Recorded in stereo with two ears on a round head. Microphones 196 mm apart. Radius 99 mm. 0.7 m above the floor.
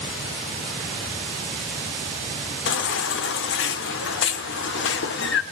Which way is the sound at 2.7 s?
60° left (ahead or behind).